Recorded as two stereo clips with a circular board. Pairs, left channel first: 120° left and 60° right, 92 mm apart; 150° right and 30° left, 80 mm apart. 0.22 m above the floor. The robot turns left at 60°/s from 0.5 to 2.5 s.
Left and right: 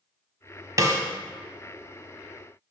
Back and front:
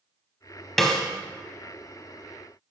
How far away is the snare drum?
About 0.7 m.